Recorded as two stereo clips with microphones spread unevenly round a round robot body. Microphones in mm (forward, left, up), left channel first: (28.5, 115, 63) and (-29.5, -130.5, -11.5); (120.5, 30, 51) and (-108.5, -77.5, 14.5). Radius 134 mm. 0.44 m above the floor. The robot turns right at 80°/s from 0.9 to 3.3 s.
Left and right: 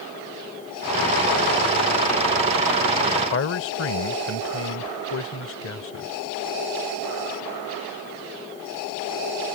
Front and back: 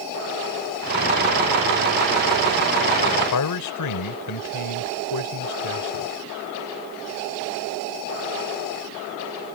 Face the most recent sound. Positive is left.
turn(degrees=30)